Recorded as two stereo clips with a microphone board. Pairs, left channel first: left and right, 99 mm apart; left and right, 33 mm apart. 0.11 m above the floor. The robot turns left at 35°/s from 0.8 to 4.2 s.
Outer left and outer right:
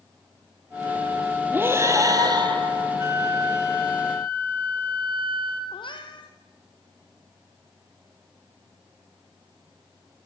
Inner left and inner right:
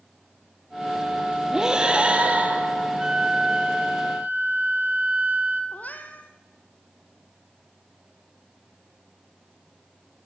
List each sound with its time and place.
1.5 s breathing: 20° right, 3 m; by 3.0 s 70° right, 3 m
3.0 s a flute: 30° right, 1.7 m; by 5.6 s 70° right, 1.7 m
5.7 s a cat meowing: 55° left (ahead or behind), 2 m